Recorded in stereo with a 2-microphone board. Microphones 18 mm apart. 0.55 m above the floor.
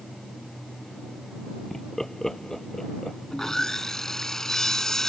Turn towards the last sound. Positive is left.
turn(degrees=30)  # may be behind; listen again after turning